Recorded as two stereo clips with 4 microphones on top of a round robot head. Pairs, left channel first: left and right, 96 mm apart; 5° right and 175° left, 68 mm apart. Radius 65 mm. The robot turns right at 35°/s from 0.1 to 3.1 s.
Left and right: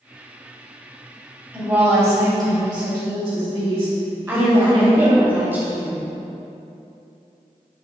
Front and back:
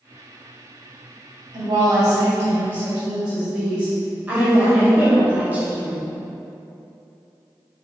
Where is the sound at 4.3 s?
140° right, 1.2 m.